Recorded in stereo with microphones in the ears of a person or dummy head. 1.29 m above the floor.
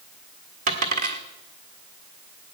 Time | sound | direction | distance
0.7 | a dropped coin | 45° right (ahead or behind) | 1.7 m